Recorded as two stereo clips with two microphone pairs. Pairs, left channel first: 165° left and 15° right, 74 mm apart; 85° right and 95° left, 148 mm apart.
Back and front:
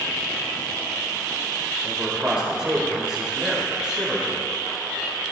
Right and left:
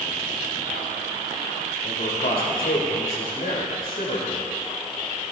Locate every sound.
1.8 s a man speaking: 95° right, 4.5 m